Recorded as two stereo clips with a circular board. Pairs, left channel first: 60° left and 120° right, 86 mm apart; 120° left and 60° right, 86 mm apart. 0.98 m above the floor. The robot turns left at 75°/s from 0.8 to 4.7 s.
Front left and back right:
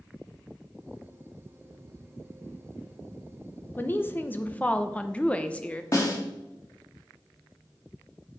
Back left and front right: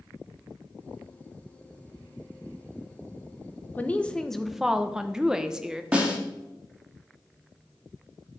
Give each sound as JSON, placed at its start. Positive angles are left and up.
{"t": 3.8, "sound": "a woman speaking", "azimuth_deg": 80, "distance_m": 0.6}
{"t": 5.9, "sound": "a snare drum", "azimuth_deg": 15, "distance_m": 1.8}